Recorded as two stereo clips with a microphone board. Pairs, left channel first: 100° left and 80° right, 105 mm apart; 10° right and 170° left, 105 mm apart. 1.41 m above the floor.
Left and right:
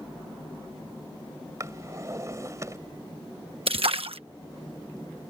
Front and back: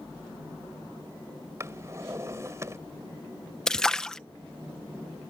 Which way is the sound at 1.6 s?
135° right.